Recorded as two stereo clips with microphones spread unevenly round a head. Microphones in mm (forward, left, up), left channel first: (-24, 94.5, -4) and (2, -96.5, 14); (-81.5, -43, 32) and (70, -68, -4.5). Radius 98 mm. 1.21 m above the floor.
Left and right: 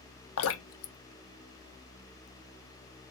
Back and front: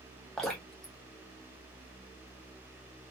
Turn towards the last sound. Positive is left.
turn(degrees=80)